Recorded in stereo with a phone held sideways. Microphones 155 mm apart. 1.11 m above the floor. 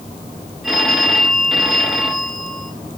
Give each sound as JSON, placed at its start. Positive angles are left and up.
{"t": 0.6, "sound": "a phone ringing", "side_deg": 0, "distance_m": 1.8}